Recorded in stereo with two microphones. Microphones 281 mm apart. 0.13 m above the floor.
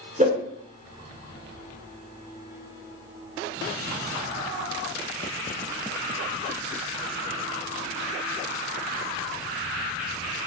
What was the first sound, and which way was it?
A whoosh, 25° right (ahead or behind).